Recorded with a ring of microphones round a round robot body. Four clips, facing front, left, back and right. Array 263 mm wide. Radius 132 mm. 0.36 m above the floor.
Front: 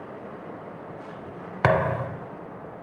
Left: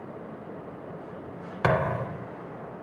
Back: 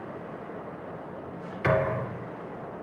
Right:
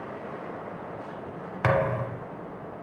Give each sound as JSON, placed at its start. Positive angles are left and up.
{"t": 1.6, "sound": "a thud", "azimuth_deg": 5, "distance_m": 1.3}